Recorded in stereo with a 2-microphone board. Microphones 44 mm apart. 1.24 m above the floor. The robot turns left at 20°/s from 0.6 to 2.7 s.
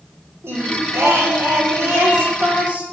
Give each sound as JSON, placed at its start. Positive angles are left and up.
{"t": 0.4, "sound": "singing", "azimuth_deg": -100, "distance_m": 1.3}